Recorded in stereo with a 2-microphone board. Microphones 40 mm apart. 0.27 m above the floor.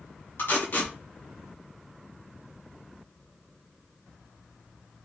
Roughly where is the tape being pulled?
Left.